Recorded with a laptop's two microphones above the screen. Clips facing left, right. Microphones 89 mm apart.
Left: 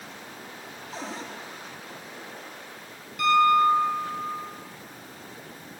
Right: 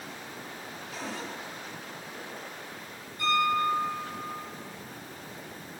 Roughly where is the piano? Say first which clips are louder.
Left 7 dB; left.